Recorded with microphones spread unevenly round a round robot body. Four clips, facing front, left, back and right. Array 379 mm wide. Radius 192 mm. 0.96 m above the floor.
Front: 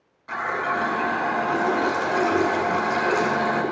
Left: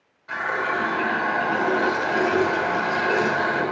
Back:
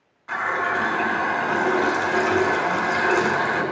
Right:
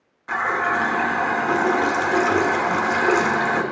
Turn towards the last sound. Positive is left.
turn(degrees=-85)